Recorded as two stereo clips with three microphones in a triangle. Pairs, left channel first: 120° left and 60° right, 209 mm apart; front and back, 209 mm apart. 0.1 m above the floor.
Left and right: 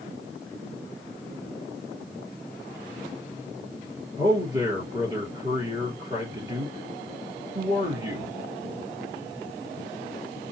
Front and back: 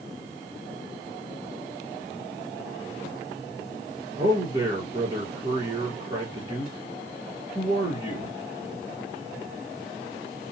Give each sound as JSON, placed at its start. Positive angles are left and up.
{"t": 4.2, "sound": "a man speaking", "azimuth_deg": -120, "distance_m": 2.0}